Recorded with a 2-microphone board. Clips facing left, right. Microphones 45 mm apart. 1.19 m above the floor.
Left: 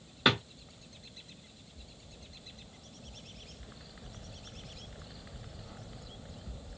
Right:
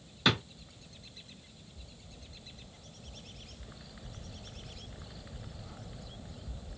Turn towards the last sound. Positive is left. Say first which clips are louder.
# left 1 dB
turn(degrees=20)  # may be behind; listen again after turning